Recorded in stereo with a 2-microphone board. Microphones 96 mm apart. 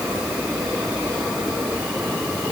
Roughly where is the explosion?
I don't hear an explosion.